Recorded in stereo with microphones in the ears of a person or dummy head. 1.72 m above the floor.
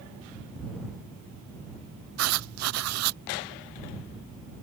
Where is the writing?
85° right.